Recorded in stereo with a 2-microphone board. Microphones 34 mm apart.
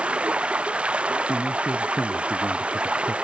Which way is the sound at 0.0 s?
35° right (ahead or behind).